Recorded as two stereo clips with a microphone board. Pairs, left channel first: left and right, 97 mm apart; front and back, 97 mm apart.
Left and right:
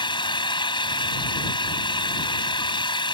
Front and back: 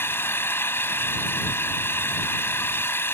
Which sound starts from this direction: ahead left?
An engine running, at 0.0 s.